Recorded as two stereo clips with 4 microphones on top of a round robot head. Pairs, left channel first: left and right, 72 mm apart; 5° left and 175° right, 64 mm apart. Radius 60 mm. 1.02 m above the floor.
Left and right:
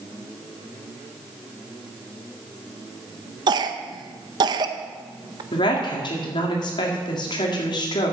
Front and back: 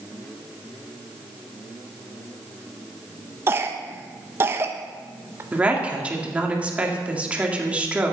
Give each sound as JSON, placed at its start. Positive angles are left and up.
{"t": 3.5, "sound": "a cough", "azimuth_deg": -115, "distance_m": 0.7}
{"t": 5.5, "sound": "a woman speaking", "azimuth_deg": 115, "distance_m": 2.0}